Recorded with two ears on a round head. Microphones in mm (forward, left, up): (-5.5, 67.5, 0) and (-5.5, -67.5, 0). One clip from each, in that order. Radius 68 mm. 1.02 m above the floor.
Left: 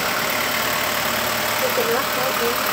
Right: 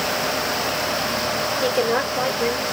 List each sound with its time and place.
1.6 s a woman speaking: 60° right (ahead or behind), 2.5 m